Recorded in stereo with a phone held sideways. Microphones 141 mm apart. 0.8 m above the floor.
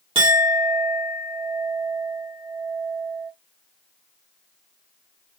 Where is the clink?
40° right (ahead or behind), 1.4 m.